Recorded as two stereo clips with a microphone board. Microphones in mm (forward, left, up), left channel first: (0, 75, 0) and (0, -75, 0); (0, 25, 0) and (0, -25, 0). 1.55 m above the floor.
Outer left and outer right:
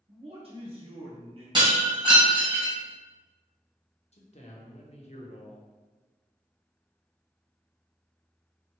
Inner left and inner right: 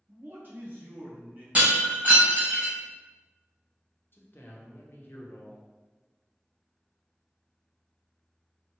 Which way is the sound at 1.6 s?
30° right (ahead or behind).